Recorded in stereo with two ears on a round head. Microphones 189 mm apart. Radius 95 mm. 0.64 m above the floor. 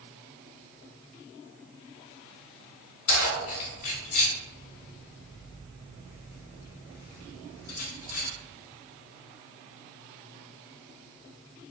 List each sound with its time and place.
3.1 s keys jangling: 80° left, 1.2 m